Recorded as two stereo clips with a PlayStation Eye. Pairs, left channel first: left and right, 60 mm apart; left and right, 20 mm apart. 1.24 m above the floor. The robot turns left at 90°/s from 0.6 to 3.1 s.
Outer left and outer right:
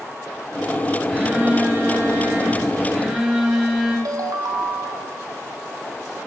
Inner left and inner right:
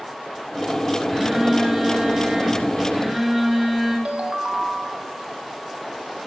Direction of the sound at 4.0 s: 65° right (ahead or behind).